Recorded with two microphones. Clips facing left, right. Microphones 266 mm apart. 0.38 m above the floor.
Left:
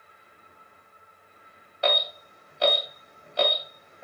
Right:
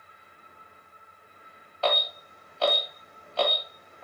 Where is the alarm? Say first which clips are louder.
Left 1 dB; 15° left (ahead or behind), 2.5 m.